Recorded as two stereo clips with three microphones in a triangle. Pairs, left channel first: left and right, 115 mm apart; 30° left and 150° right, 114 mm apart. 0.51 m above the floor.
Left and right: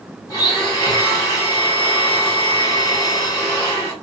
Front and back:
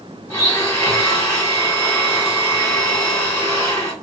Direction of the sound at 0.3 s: 70° left.